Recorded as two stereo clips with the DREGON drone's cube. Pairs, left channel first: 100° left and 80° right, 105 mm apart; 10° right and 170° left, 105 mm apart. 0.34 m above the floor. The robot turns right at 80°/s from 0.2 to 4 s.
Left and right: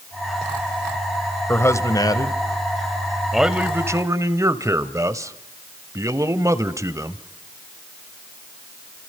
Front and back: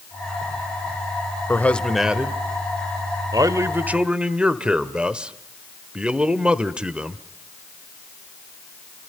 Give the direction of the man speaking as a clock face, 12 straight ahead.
11 o'clock.